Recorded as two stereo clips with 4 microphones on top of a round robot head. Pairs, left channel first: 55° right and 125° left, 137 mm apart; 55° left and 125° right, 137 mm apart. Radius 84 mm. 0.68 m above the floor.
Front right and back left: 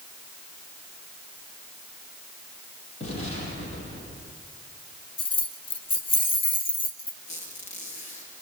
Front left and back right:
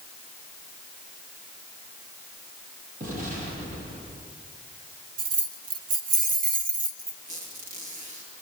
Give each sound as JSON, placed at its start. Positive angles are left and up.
{"t": 3.0, "sound": "an explosion", "azimuth_deg": -95, "distance_m": 7.5}
{"t": 5.2, "sound": "keys jangling", "azimuth_deg": -105, "distance_m": 1.4}
{"t": 7.3, "sound": "a squeak", "azimuth_deg": -90, "distance_m": 7.0}